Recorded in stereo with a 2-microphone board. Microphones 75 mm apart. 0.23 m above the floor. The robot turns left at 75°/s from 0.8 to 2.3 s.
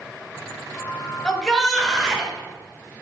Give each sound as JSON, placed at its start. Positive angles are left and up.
{"t": 1.2, "sound": "a shout", "side_deg": 10, "distance_m": 1.4}